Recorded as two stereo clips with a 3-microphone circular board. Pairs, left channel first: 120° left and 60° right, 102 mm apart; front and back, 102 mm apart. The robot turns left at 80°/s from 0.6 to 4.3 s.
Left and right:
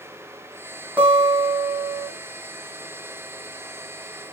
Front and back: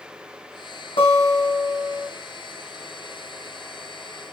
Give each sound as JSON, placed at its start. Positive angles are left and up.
{"t": 1.0, "sound": "a guitar", "azimuth_deg": 10, "distance_m": 3.0}